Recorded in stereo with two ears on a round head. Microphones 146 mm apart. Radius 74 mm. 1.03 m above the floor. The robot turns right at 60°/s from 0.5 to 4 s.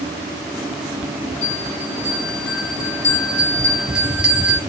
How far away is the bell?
About 1.4 m.